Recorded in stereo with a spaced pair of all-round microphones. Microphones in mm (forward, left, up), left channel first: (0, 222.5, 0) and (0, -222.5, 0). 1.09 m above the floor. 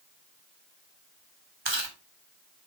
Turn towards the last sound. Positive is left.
turn(degrees=-65)  # may be behind; listen again after turning